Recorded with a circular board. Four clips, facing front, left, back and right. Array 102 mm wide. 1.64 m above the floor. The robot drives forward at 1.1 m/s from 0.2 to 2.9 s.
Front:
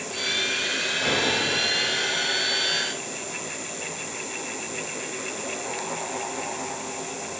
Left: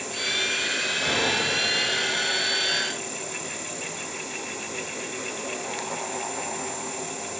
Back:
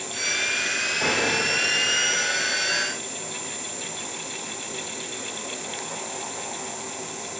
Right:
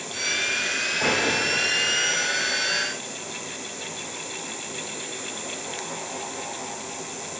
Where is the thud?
125° right, 5 m.